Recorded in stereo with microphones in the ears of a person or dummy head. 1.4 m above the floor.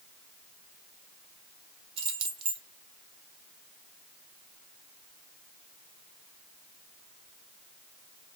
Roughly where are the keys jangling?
Right.